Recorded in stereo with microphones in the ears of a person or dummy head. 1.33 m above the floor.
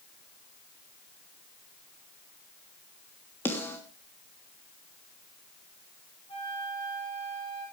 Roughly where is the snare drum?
Centre.